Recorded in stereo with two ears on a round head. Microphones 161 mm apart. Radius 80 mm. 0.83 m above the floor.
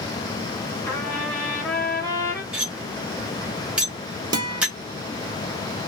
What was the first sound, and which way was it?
A trumpet, 10° left (ahead or behind).